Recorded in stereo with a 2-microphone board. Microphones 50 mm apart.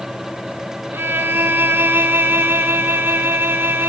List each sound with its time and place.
0.9 s a violin: 45° right (ahead or behind), 1.1 m